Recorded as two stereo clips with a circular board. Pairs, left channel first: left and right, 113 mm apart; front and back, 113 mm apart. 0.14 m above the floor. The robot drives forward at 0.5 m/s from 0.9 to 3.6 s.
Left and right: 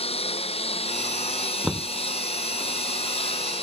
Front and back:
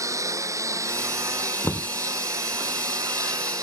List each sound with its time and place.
0.0 s a lawn mower: 120° left
1.6 s knocking: 5° right